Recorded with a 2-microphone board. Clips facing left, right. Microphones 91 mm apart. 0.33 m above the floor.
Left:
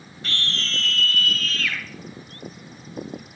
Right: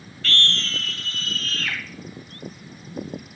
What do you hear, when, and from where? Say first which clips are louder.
0.2 s a scream: right 3 dB; 20° left (ahead or behind), 1.7 m; by 1.8 s 45° right (ahead or behind), 2 m